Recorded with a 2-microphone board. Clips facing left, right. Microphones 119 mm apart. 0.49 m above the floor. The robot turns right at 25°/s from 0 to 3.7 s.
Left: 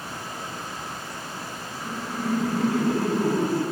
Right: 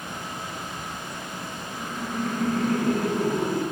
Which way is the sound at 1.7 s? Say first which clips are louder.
Right 1 dB; 10° right.